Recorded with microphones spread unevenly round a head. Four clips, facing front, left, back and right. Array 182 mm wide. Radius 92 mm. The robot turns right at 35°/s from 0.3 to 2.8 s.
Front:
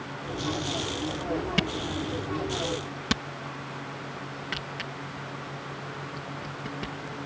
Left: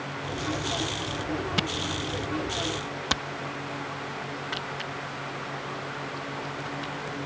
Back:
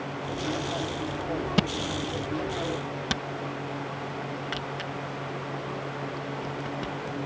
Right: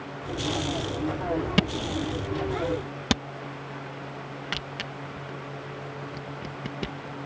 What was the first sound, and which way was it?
A camera shutter, 140° right.